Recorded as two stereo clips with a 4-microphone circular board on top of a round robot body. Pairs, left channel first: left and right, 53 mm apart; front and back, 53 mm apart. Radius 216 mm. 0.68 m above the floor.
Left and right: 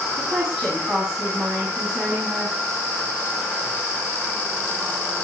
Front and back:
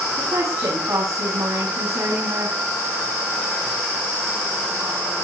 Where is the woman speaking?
170° right, 7.5 m.